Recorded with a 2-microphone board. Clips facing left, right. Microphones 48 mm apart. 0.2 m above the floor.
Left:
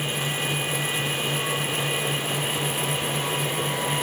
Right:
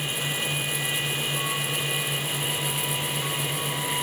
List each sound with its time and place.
Only background noise.